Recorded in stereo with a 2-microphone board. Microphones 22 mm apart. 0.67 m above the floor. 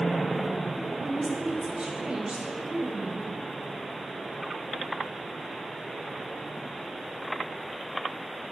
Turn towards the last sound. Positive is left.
turn(degrees=-55)  # may be behind; listen again after turning